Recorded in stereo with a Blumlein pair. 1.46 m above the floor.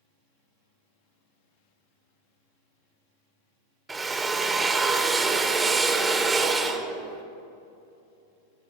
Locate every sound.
3.9 s a drill: 10° right, 0.9 m